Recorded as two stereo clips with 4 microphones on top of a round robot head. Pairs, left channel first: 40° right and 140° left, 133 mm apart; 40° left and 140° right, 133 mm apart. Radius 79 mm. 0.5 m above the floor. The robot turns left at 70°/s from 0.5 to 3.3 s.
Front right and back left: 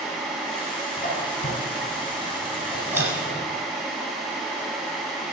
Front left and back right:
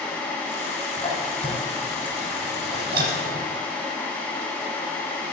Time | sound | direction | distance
1.0 | a squeak | 5° right | 8 m